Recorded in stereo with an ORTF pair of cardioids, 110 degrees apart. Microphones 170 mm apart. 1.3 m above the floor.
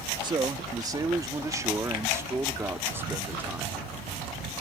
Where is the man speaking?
25° right; by 3.8 s 10° right.